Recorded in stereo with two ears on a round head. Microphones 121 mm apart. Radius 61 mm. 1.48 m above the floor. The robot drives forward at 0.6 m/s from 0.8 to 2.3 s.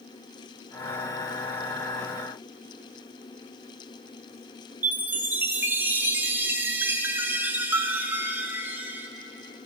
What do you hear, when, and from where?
4.8 s a chime: 15° right (ahead or behind), 0.8 m